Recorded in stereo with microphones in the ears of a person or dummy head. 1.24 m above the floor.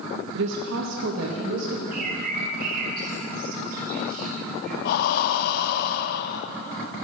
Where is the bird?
50° right (ahead or behind), 4 m.